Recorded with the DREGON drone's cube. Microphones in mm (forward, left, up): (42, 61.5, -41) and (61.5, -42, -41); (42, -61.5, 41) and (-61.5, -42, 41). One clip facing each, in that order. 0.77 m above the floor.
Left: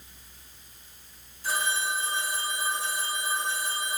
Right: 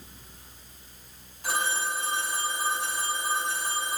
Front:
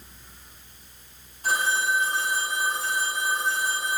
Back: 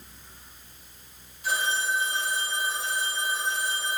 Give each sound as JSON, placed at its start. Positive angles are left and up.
{"t": 1.4, "sound": "a phone ringing", "azimuth_deg": -55, "distance_m": 6.5}